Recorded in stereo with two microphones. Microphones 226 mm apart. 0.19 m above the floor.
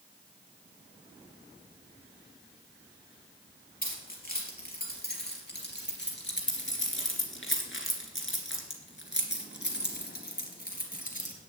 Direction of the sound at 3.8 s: 45° left (ahead or behind).